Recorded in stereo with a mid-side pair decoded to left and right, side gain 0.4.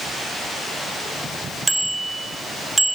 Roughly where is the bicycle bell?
Ahead.